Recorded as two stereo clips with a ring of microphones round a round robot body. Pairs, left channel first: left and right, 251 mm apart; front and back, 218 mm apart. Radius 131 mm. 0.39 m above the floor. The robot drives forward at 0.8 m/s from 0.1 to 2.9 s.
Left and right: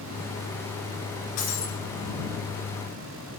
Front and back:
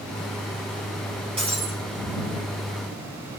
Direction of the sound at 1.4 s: 115° left.